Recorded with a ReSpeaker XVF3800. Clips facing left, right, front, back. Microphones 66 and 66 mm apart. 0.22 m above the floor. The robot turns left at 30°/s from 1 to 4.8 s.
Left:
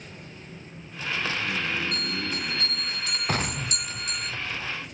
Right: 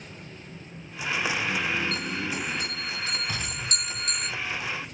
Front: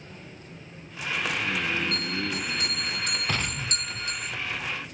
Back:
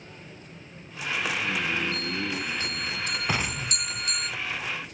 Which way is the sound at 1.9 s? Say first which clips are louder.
Right 1 dB, even; 10° left.